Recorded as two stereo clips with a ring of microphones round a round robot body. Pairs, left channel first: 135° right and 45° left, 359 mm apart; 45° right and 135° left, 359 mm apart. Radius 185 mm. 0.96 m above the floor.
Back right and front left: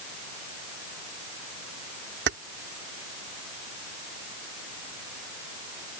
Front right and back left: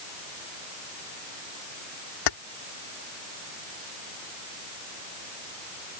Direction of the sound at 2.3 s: 15° right.